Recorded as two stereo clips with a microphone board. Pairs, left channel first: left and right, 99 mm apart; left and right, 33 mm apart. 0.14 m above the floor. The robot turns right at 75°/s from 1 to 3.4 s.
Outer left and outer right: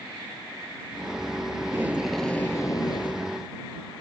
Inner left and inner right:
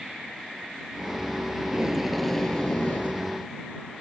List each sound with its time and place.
1.6 s tape being pulled: 40° right; by 3.3 s 85° left